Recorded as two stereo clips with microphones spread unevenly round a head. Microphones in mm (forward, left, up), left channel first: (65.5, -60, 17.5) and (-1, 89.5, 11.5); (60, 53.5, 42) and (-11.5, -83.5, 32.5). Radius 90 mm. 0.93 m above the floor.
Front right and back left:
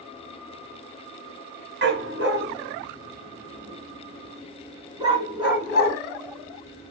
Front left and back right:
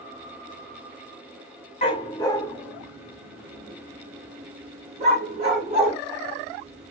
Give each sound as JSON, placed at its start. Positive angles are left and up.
{"t": 1.8, "sound": "a dog barking", "azimuth_deg": 115, "distance_m": 1.3}